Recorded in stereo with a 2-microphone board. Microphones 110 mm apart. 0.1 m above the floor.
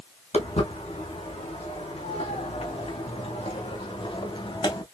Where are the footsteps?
90° left, 3.5 m; by 4.8 s 45° left (ahead or behind), 1.8 m.